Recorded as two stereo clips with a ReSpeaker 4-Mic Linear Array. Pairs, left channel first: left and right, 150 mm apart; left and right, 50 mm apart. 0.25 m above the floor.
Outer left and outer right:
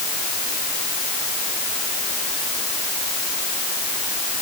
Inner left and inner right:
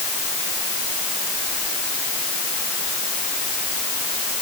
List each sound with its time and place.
Only background noise.